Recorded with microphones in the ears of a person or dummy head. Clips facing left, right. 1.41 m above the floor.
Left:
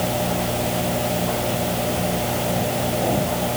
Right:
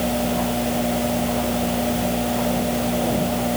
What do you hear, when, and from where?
Only background noise.